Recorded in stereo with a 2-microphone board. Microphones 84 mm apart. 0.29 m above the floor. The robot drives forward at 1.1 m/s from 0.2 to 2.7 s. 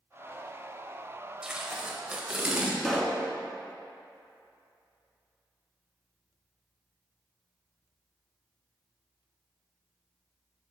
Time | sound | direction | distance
1.4 | tape being pulled | 10° right (ahead or behind) | 1.1 m
2.8 | a pop | 5° left (ahead or behind) | 0.9 m